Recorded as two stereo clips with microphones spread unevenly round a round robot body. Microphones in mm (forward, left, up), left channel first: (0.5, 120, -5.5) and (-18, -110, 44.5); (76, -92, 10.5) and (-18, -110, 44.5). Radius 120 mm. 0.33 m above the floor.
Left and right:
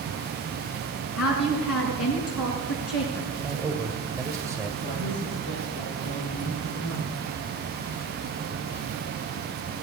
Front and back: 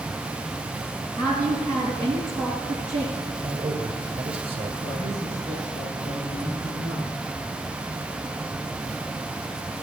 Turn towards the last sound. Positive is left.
turn(degrees=55)